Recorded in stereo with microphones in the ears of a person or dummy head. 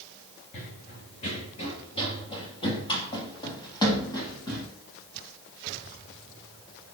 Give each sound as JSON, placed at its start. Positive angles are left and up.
{"t": 0.5, "sound": "running footsteps", "side_deg": 35, "distance_m": 1.9}